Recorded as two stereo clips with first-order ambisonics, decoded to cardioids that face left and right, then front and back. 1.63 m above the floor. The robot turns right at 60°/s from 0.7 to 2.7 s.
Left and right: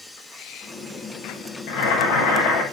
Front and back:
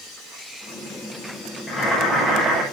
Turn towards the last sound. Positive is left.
turn(degrees=130)